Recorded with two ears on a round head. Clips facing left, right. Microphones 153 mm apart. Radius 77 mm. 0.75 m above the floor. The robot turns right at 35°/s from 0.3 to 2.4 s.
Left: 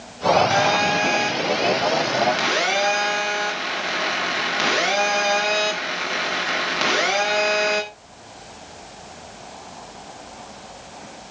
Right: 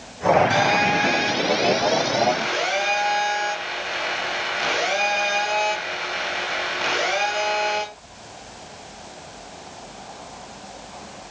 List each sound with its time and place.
0.5 s a phone buzzing: 25° left, 7 m; by 7.8 s 95° left, 7 m